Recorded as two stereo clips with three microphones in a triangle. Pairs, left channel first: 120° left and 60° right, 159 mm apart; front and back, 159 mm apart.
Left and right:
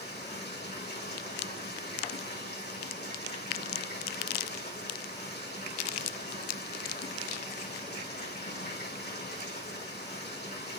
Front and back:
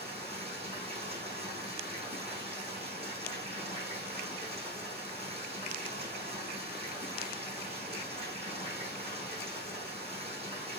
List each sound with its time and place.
0.0 s running water: 125° left, 5 m